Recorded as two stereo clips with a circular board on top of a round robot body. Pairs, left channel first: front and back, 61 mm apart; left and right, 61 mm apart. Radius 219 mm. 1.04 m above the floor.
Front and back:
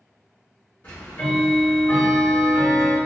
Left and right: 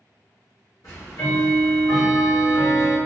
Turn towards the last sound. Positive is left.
turn(degrees=60)